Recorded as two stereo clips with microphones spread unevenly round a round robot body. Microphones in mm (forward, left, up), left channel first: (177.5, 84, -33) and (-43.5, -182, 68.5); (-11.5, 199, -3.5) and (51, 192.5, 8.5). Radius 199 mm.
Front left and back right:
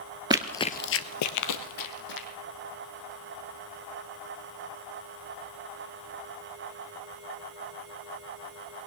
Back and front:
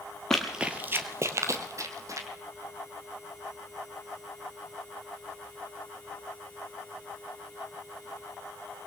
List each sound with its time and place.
0.3 s running footsteps: 90° right, 0.6 m; by 2.3 s 20° left, 1.7 m